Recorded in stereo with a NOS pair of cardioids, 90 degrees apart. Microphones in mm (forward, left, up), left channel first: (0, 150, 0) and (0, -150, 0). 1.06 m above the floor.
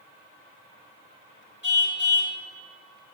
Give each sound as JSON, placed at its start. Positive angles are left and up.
{"t": 1.6, "sound": "a car horn", "azimuth_deg": 40, "distance_m": 3.5}